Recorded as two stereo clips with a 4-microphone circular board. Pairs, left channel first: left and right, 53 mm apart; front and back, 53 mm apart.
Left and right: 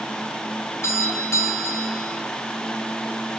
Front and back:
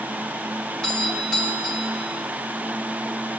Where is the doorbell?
70° left, 3.5 m.